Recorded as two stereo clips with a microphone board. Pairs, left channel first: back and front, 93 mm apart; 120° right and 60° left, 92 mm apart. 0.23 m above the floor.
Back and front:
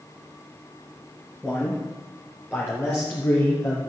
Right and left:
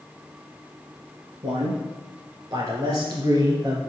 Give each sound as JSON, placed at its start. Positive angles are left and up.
{"t": 1.4, "sound": "a man speaking", "azimuth_deg": 95, "distance_m": 2.5}